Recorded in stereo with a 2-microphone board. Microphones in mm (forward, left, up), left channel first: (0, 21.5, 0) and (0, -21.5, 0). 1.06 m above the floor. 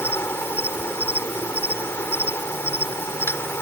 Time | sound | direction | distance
0.0 | an insect | 80° left | ?